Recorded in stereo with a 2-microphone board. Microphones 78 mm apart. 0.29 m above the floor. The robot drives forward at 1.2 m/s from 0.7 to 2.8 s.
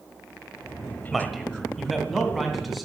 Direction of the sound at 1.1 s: Centre (ahead or behind).